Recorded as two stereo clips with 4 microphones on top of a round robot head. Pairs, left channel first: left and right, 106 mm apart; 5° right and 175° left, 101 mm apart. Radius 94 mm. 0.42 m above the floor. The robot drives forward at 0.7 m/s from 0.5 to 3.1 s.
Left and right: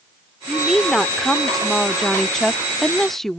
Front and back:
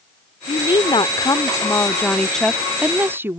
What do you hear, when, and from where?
0.5 s a woman speaking: straight ahead; by 3.4 s 170° left